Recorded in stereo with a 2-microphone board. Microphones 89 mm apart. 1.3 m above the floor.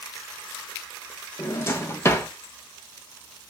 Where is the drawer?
30° left (ahead or behind), 0.6 m.